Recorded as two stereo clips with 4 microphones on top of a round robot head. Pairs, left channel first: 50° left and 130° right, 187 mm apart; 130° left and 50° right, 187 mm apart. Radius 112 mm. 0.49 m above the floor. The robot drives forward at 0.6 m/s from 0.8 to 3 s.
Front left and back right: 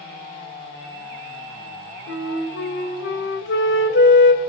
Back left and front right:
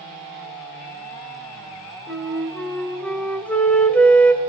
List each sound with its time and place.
2.1 s a flute: 40° left, 2.5 m; by 4.4 s 45° left, 2.5 m